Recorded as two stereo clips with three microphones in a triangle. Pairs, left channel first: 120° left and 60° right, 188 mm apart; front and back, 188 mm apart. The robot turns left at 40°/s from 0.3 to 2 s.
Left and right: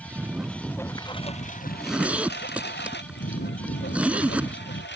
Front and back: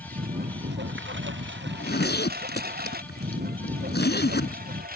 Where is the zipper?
35° left; by 4.8 s 25° left.